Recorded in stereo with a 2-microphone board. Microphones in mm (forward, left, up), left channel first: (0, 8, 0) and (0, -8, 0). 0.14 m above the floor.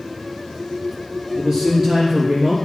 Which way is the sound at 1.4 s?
40° right (ahead or behind).